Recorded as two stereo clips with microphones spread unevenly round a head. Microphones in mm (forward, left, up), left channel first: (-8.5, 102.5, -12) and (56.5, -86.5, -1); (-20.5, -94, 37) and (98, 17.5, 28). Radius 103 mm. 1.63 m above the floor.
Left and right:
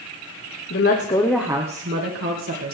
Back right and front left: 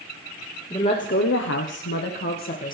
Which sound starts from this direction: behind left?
A woman speaking, at 0.7 s.